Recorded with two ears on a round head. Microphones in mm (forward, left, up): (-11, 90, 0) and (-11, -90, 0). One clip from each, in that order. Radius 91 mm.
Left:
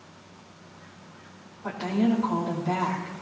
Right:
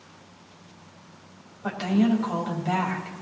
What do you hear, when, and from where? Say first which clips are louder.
1.6 s a woman speaking: right 2 dB; 55° right (ahead or behind), 4.5 m